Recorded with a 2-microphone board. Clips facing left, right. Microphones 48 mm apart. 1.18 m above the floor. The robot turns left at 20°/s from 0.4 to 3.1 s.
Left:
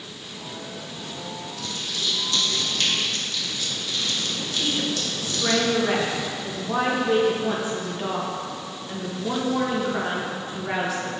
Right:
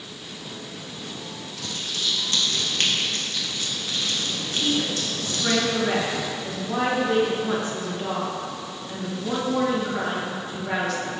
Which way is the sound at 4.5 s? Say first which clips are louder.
Right 2 dB; 15° left (ahead or behind).